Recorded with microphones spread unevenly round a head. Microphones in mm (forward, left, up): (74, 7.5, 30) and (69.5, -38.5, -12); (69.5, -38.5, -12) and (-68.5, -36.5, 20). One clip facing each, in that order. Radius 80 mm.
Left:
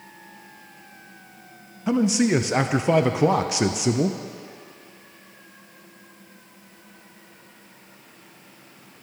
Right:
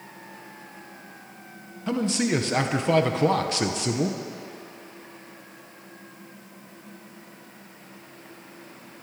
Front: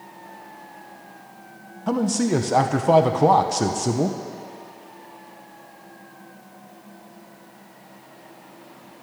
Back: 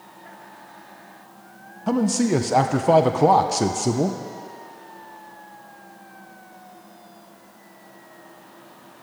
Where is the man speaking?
75° right, 0.5 m.